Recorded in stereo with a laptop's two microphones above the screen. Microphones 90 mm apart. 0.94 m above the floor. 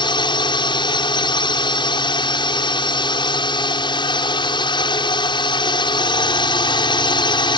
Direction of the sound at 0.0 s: 65° left (ahead or behind).